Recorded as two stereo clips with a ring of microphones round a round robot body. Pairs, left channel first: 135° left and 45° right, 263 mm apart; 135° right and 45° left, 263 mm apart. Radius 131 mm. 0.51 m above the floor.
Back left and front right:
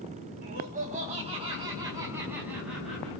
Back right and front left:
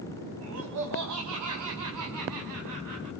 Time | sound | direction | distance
0.4 | laughter | 10° left | 4.5 m